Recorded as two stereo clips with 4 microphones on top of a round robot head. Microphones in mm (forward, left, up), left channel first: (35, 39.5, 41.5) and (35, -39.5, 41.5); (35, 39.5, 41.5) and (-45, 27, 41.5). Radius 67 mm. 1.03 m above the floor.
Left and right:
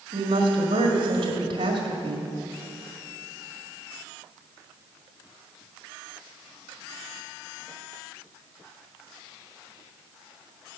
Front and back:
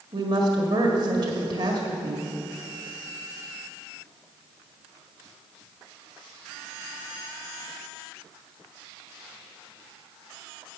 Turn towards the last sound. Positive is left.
turn(degrees=-125)